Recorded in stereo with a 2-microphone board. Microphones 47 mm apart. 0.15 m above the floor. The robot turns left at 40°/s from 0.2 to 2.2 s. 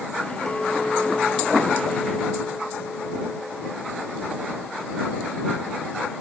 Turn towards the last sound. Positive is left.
turn(degrees=105)